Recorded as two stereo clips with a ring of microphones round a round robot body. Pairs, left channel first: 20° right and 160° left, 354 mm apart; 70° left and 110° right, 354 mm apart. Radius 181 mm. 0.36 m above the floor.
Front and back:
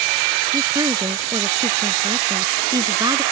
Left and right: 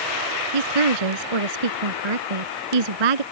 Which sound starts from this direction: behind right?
A woman speaking, at 0.5 s.